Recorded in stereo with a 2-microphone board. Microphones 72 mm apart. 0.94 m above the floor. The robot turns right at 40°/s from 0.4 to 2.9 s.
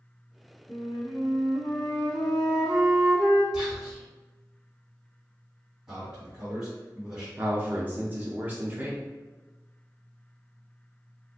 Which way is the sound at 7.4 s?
20° right (ahead or behind).